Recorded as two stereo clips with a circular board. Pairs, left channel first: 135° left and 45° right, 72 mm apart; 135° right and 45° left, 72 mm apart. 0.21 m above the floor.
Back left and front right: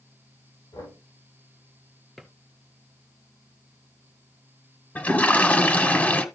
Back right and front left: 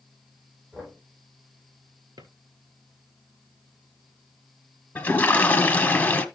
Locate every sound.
0.7 s knocking: 120° left, 6 m
2.2 s a drawer: 50° left, 1.5 m
5.0 s a toilet flushing: 175° right, 1.1 m